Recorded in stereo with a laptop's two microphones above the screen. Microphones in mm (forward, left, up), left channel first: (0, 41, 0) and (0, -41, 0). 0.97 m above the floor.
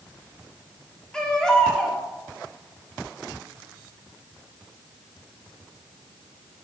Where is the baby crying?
10° left (ahead or behind), 1.4 m.